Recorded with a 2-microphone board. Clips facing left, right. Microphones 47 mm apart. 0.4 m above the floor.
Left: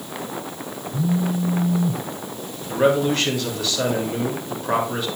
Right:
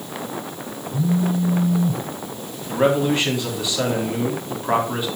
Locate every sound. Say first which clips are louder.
0.9 s a phone buzzing: right 2 dB; 10° left (ahead or behind), 0.8 m
2.7 s a man speaking: even; 15° right (ahead or behind), 3 m